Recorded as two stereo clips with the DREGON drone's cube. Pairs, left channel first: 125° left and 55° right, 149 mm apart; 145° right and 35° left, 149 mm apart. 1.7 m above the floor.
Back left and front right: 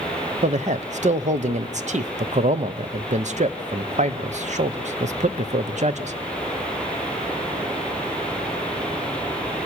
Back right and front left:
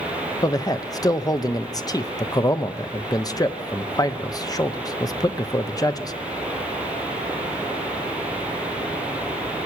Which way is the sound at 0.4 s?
85° right.